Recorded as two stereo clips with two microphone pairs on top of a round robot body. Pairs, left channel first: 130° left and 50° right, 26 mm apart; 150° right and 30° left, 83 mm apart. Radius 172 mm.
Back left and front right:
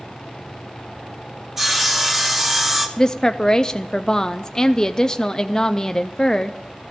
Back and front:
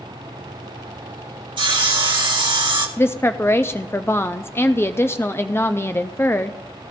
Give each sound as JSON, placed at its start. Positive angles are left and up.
{"t": 1.6, "sound": "sawing", "azimuth_deg": 25, "distance_m": 2.0}
{"t": 3.0, "sound": "a woman speaking", "azimuth_deg": 175, "distance_m": 0.7}